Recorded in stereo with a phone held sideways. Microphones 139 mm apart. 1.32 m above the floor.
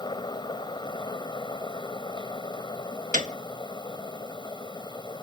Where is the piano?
75° right (ahead or behind).